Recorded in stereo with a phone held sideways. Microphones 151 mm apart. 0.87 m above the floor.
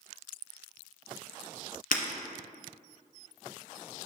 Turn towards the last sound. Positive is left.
turn(degrees=70)  # may be behind; listen again after turning